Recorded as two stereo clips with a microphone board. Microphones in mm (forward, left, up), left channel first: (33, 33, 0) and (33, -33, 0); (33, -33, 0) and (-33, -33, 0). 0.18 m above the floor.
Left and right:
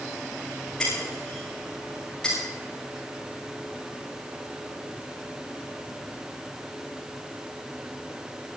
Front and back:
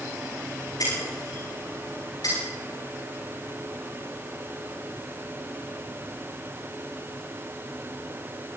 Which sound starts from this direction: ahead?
Breaking glass, at 0.8 s.